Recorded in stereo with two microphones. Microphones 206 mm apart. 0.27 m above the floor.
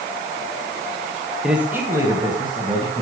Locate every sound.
1.4 s a man speaking: 5° right (ahead or behind), 1.4 m; by 3.0 s 30° right (ahead or behind), 2.5 m